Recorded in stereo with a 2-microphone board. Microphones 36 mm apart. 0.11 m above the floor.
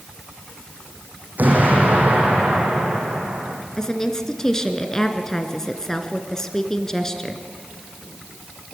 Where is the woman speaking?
15° left (ahead or behind), 1.6 m.